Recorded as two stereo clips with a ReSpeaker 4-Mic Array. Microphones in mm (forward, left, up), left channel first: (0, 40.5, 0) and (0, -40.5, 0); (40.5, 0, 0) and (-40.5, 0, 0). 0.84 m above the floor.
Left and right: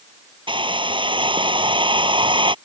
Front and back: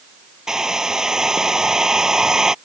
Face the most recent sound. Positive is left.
turn(degrees=-95)